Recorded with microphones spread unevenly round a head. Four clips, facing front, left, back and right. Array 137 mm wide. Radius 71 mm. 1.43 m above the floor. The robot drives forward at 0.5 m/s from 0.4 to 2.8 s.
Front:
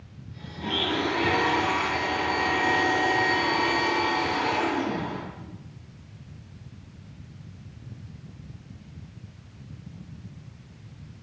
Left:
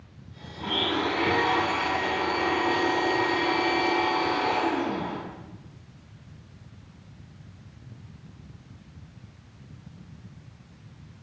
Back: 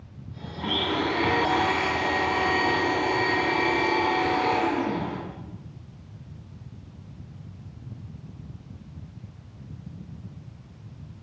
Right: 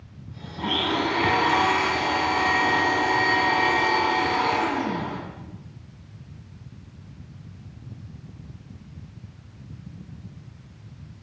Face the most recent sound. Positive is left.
turn(degrees=-100)